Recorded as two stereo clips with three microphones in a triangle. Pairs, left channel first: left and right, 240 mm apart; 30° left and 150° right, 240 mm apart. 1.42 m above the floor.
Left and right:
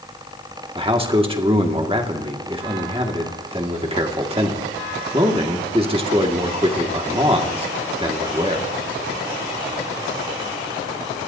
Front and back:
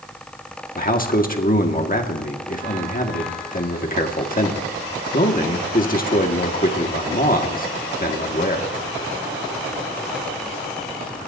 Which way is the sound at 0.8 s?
25° right.